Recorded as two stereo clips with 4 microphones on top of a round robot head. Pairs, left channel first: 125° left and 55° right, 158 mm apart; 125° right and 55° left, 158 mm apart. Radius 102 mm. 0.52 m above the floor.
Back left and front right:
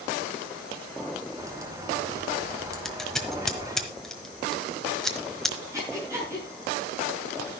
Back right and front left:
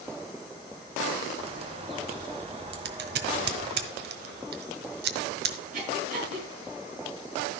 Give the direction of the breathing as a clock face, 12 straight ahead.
11 o'clock.